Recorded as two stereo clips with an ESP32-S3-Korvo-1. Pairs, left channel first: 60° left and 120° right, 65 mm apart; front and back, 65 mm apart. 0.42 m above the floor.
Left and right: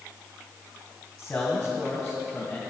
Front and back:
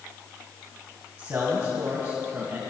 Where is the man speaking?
140° left, 2.5 m.